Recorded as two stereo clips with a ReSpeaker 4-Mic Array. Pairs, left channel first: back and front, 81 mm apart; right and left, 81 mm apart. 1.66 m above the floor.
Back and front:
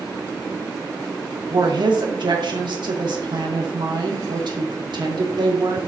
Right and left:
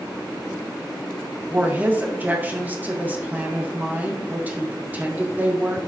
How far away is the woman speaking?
About 1.8 m.